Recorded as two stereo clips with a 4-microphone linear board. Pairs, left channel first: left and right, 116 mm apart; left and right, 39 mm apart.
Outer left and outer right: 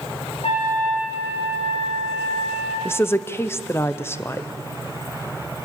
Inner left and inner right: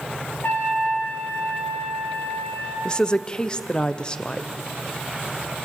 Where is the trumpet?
60° left (ahead or behind), 5 m.